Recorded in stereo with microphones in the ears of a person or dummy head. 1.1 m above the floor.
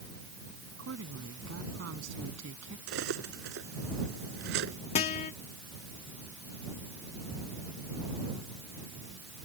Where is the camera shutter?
No camera shutter in this recording.